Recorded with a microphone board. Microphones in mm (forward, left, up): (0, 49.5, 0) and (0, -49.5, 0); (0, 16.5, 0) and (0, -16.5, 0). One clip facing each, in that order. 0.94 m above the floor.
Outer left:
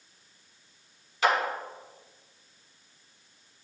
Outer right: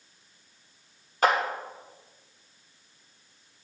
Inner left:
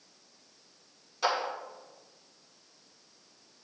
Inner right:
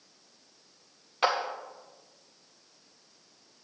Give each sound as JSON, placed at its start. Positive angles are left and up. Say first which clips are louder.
{"t": 1.2, "sound": "a clap", "louder": "outer right 2 dB, inner right 2 dB", "side_deg": -45, "distance_m": 1.3}